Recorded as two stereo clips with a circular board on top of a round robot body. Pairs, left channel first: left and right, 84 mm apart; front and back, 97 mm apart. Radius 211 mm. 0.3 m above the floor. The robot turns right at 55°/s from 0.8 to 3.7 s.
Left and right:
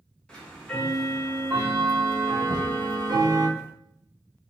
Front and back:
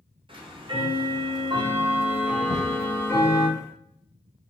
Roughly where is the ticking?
Behind.